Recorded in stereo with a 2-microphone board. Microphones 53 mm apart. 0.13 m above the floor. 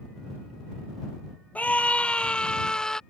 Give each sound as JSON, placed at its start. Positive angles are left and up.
{"t": 1.6, "sound": "a scream", "side_deg": 30}